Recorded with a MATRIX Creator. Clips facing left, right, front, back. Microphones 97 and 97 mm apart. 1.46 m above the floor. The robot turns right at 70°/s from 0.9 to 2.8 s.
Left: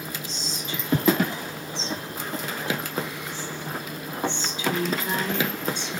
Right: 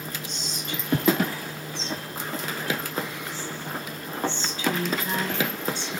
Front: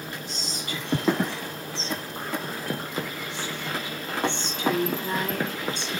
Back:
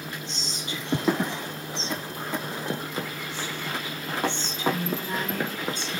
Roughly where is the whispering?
Behind right.